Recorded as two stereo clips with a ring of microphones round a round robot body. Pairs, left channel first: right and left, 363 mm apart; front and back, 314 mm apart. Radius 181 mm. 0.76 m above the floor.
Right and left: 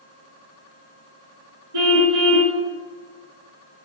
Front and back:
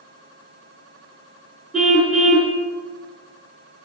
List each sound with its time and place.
1.7 s a car horn: 90° left, 4.5 m